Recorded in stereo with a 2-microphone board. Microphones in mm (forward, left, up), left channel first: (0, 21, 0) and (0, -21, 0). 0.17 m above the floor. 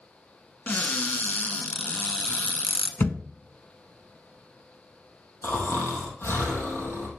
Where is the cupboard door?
50° left (ahead or behind), 0.9 m.